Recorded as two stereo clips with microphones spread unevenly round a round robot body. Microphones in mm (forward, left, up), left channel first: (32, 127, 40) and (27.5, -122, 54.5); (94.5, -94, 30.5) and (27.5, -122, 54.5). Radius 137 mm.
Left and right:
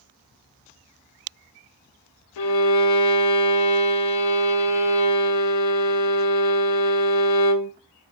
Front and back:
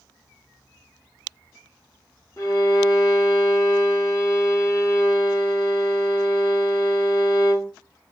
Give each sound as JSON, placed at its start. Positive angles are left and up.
{"t": 2.4, "sound": "a violin", "azimuth_deg": 105, "distance_m": 0.7}